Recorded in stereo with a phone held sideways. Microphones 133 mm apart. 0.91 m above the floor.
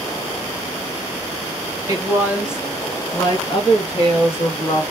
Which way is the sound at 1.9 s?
25° right (ahead or behind).